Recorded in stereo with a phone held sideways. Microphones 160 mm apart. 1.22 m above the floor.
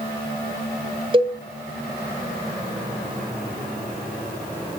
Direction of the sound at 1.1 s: 30° right (ahead or behind).